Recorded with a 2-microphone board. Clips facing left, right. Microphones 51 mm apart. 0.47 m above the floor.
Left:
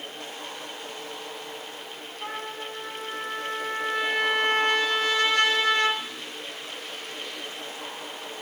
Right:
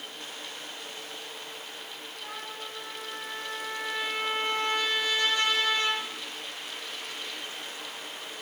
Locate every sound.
2.2 s a trumpet: 75° left (ahead or behind), 3.5 m